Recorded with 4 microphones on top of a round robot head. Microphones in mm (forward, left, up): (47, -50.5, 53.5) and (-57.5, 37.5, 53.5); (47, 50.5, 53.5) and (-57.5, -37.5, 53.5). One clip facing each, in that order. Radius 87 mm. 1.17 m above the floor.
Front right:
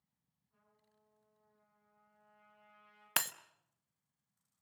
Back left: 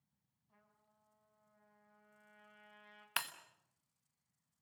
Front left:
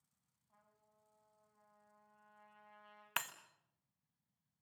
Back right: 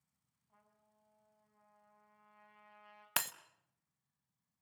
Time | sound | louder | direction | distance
0.5 | a trumpet | back left 1 dB, back right 1 dB | 140° left | 8.5 m
3.2 | breaking glass | front right 4 dB, back right 3 dB | 85° right | 0.9 m